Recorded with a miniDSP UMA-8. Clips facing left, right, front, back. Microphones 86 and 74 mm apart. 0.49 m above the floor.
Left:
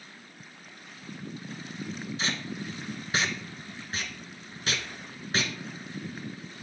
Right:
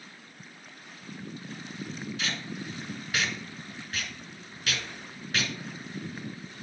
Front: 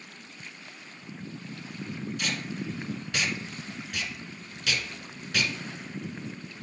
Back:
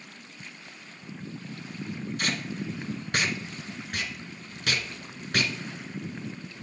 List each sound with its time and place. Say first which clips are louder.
2.2 s tape being pulled: left 3 dB, back 3 dB; 145° left, 0.8 m